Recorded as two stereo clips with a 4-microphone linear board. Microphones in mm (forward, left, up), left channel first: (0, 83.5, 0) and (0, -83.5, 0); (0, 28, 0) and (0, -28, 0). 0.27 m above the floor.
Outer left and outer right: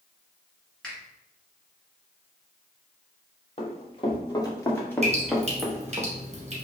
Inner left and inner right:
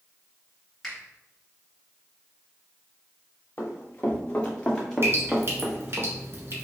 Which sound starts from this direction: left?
Running footsteps, at 3.6 s.